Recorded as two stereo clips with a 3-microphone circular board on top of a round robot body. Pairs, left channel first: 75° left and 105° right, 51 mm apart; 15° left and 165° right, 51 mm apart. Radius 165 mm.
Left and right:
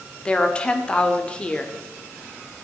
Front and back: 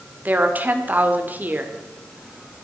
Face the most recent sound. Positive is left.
turn(degrees=140)